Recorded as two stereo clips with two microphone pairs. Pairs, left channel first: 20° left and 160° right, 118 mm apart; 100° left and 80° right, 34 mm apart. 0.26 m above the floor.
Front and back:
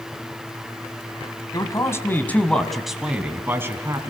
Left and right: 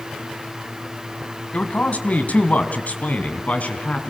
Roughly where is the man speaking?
Left.